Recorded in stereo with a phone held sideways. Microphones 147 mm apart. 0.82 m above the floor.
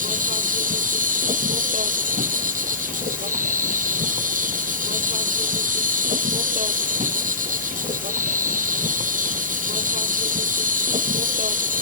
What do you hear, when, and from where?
0.0 s an insect: 65° right (ahead or behind)